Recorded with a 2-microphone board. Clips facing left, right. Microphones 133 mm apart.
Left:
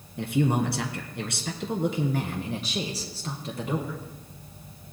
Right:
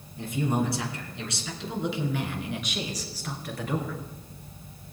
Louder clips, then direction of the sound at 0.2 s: Left 3 dB; 65° left (ahead or behind).